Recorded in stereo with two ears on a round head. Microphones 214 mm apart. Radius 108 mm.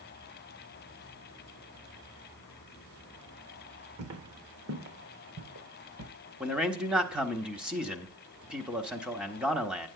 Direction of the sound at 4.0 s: 50° right (ahead or behind).